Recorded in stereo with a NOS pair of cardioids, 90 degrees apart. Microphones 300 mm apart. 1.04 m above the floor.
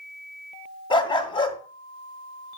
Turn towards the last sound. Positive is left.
turn(degrees=15)